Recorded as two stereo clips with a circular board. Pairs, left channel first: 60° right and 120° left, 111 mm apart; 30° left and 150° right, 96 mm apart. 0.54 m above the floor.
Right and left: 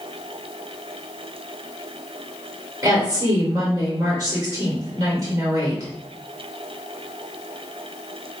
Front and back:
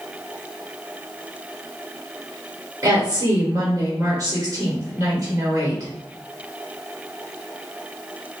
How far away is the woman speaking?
About 1.5 m.